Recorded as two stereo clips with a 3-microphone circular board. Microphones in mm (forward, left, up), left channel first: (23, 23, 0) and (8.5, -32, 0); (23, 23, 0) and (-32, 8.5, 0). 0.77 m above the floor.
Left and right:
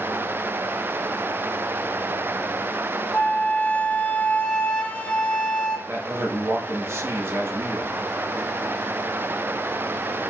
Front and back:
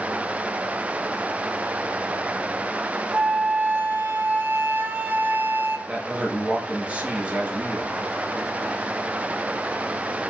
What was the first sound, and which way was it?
A flute, 135° left.